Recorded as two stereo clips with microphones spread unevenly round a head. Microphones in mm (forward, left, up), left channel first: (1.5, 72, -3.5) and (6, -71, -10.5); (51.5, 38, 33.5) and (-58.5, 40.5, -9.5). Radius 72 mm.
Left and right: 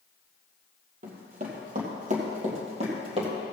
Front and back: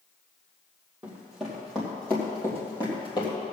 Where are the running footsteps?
85° right, 2.5 m; by 3.3 s 40° right, 3 m.